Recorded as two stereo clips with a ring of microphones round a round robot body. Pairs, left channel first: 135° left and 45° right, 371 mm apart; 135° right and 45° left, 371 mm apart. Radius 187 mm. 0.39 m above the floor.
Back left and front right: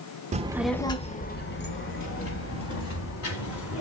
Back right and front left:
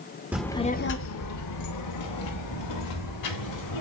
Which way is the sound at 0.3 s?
30° right.